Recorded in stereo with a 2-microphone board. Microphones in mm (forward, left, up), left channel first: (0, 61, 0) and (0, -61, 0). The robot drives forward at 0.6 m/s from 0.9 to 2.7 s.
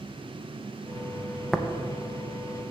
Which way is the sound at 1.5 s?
Centre (ahead or behind).